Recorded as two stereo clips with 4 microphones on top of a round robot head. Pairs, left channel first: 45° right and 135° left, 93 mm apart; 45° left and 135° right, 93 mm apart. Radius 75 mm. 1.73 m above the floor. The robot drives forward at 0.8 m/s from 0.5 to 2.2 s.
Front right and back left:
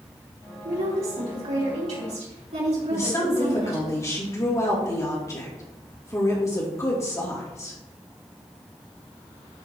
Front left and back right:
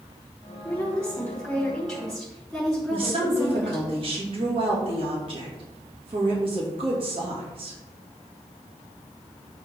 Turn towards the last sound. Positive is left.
turn(degrees=-105)